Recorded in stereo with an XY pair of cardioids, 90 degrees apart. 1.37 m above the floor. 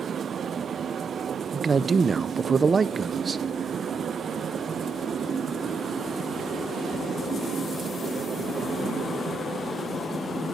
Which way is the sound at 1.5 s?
35° right.